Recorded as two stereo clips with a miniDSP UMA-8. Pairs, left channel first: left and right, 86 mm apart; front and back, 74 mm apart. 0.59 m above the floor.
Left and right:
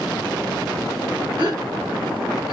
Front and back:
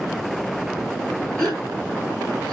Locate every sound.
1.4 s a gasp: 80° right, 1.8 m